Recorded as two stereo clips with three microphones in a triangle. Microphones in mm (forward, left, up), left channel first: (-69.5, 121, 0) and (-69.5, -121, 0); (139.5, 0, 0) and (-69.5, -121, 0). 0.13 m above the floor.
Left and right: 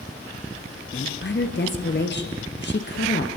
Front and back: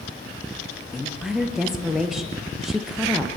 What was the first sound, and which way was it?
A woman speaking, 120° left.